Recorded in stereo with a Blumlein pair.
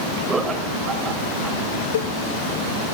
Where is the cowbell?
60° left, 0.6 m.